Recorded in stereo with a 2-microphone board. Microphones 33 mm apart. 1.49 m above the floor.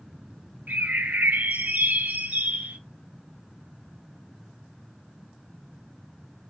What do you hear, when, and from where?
0.7 s a bird: 75° right (ahead or behind), 0.9 m